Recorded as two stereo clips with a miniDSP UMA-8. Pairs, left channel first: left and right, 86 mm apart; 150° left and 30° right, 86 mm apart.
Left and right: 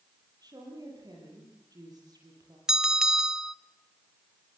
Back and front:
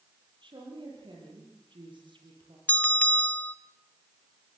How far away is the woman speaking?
About 7.5 m.